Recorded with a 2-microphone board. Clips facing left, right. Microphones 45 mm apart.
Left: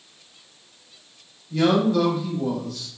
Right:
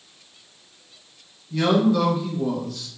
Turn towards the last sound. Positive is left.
turn(degrees=-5)  # may be behind; listen again after turning